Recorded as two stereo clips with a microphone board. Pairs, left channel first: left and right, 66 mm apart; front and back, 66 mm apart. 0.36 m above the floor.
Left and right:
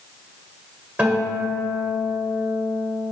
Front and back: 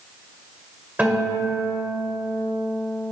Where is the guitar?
140° right, 1.6 m.